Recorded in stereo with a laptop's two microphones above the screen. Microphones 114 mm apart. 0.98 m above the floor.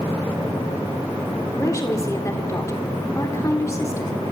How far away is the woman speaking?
About 3 m.